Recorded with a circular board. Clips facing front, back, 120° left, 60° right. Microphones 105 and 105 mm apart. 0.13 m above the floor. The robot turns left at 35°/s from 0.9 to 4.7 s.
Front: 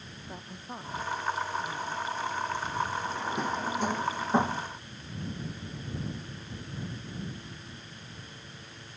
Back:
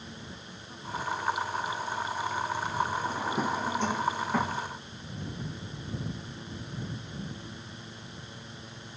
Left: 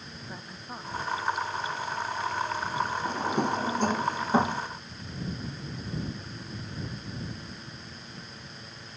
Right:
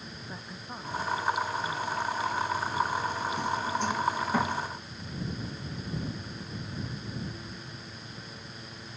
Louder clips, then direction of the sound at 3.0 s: Back 2 dB, left 3 dB; 110° left.